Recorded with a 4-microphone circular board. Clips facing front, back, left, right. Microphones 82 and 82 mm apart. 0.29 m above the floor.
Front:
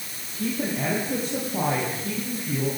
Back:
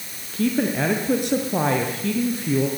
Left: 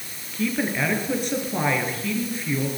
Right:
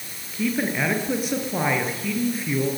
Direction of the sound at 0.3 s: 175° right.